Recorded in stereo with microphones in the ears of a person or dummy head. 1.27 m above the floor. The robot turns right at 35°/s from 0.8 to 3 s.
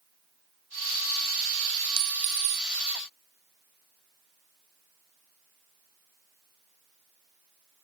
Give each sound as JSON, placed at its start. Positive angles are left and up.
{"t": 2.0, "sound": "a clink", "side_deg": -25, "distance_m": 1.1}